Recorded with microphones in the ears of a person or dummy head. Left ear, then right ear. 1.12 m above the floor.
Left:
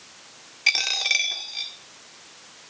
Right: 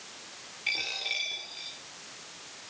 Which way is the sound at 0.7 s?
55° left (ahead or behind).